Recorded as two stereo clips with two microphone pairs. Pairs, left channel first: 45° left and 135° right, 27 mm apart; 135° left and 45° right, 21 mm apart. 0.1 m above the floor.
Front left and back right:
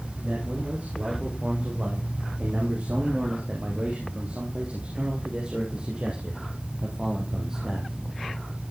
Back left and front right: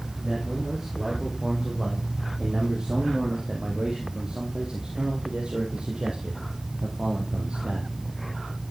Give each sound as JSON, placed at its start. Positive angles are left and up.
{"t": 0.2, "sound": "a man speaking", "azimuth_deg": -115, "distance_m": 6.5}